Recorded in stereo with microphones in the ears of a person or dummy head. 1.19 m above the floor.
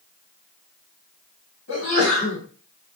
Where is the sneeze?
85° left, 1.5 m.